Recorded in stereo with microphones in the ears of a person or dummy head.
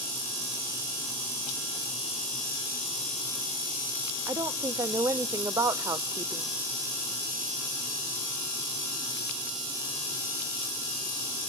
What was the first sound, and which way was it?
A woman speaking, 20° right (ahead or behind).